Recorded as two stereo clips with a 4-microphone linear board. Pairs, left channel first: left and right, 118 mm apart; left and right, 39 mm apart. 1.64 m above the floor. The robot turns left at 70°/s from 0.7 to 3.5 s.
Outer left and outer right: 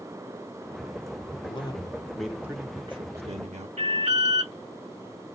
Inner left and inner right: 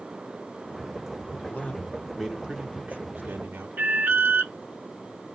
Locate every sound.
1.4 s a man speaking: 55° left, 1.7 m; by 3.7 s 90° right, 1.7 m
3.8 s an alarm: 80° right, 3.5 m